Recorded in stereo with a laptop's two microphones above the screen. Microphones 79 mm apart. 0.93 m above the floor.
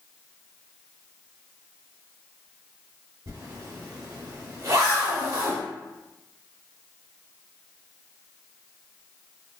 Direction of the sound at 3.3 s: 45° right (ahead or behind).